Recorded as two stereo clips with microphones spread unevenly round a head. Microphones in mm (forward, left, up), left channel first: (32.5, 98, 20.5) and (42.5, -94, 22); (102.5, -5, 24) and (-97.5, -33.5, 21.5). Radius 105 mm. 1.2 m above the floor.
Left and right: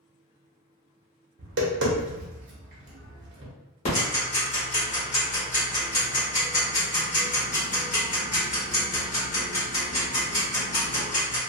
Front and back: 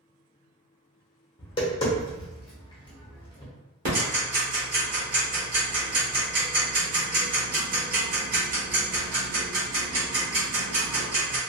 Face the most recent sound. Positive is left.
turn(degrees=145)